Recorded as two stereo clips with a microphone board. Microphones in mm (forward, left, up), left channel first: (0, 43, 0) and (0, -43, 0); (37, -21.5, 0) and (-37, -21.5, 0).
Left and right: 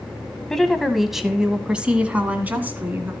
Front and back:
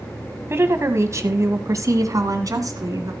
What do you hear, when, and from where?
0.5 s a woman speaking: 170° left, 1.6 m; by 3.1 s 155° right, 2.5 m